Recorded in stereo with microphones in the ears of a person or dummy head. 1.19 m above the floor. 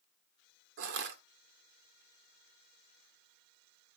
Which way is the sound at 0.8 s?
65° right (ahead or behind).